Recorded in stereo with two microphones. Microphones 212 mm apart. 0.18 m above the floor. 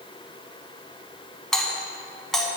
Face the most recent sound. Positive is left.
turn(degrees=0)  # may be behind; listen again after turning